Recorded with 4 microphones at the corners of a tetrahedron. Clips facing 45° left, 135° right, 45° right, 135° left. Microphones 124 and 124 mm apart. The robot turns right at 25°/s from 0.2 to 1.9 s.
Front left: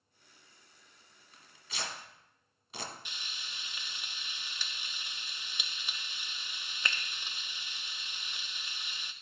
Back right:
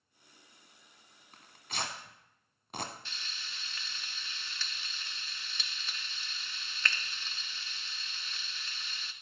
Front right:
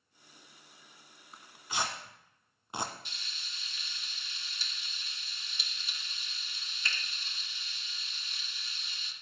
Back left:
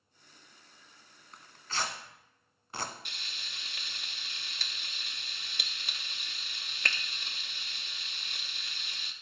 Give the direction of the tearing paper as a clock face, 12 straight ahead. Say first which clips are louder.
Back right 4 dB, front right 1 dB; 4 o'clock.